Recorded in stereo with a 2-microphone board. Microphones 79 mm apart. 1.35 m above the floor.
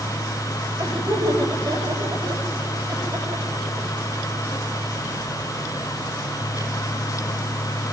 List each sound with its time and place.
0.8 s laughter: 60° right (ahead or behind), 8 m